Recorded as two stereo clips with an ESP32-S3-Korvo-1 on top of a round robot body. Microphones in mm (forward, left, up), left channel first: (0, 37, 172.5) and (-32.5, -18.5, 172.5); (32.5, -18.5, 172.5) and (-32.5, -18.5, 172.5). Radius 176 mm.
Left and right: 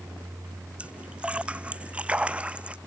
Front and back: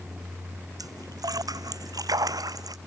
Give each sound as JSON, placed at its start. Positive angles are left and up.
{"t": 0.8, "sound": "a splash", "azimuth_deg": 170}